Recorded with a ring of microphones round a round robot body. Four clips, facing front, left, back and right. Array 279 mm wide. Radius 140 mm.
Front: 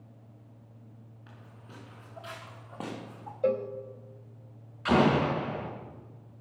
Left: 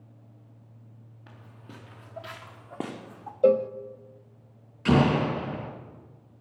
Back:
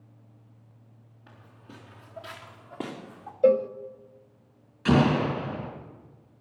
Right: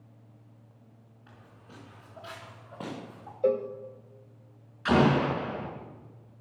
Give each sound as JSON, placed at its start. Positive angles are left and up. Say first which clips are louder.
{"t": 1.3, "sound": "footsteps", "louder": "left 4 dB, back 3 dB", "azimuth_deg": 90, "distance_m": 5.5}
{"t": 3.4, "sound": "a cowbell", "louder": "left 6 dB, back 8 dB", "azimuth_deg": 120, "distance_m": 0.5}
{"t": 4.8, "sound": "an explosion", "louder": "left 1 dB, back 1 dB", "azimuth_deg": 130, "distance_m": 5.0}